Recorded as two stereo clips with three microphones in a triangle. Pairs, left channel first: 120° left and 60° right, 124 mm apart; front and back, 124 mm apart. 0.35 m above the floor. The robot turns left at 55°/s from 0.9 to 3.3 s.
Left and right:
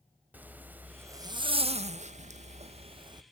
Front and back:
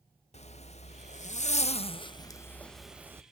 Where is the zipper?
15° left, 0.6 m; by 3.2 s 110° right, 0.6 m.